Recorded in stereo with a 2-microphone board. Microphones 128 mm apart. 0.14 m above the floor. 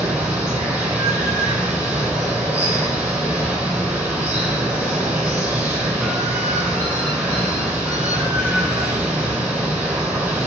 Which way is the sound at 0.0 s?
15° right (ahead or behind).